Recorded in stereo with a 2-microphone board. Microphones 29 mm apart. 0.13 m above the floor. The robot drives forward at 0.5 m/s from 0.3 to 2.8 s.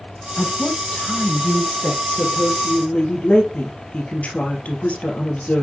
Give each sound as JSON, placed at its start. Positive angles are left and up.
{"t": 0.4, "sound": "a woman speaking", "side_deg": 40, "distance_m": 3.5}